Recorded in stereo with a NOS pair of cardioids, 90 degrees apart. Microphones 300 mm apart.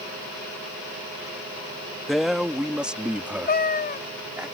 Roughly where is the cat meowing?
Ahead left.